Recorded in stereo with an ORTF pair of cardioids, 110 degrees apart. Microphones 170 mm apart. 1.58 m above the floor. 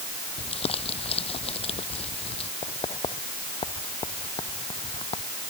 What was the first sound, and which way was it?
Crumpling, 35° left.